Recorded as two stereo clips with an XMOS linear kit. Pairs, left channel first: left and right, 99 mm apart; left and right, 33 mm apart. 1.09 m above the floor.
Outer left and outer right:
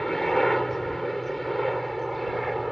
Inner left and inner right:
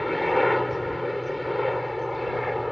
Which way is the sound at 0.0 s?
Centre (ahead or behind).